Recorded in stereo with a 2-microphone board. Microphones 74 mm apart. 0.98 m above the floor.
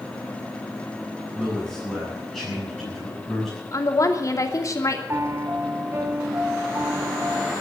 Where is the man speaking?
5° right (ahead or behind), 9 m; by 3.6 s centre (ahead or behind), 7 m.